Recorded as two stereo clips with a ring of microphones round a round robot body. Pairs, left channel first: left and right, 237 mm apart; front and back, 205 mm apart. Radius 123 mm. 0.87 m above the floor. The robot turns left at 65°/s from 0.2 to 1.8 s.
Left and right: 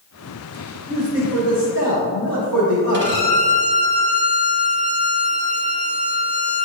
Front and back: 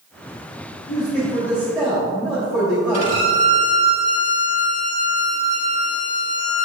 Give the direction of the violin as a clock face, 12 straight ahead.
2 o'clock.